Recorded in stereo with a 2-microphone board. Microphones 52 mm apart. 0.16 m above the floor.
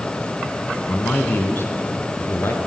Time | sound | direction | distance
0.9 | a man speaking | 35° left (ahead or behind) | 1.2 m